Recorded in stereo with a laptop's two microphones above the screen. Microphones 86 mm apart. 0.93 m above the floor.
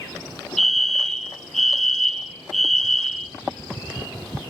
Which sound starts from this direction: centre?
A fire alarm, at 0.6 s.